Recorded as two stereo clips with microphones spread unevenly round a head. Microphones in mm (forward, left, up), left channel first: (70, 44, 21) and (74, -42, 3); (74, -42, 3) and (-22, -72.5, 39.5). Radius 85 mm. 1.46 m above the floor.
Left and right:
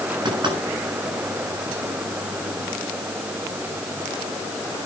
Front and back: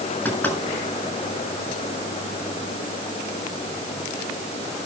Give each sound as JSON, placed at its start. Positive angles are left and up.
{"t": 0.2, "sound": "knocking", "azimuth_deg": -55, "distance_m": 7.0}